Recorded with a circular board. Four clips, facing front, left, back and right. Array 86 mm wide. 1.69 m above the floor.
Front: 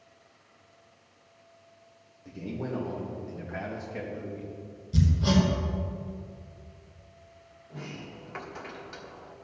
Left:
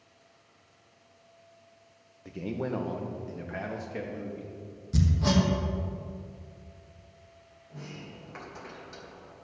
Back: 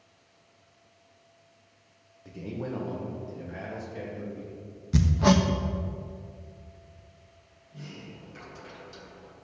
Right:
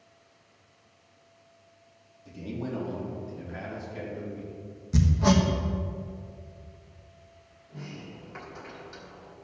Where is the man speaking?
100° left, 1.5 m; by 4.6 s 65° left, 3 m.